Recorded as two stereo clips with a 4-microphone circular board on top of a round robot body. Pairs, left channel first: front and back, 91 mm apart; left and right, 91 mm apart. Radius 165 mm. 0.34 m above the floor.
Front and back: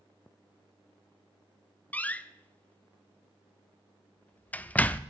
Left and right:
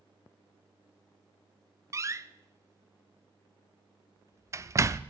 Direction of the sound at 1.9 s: 60° right.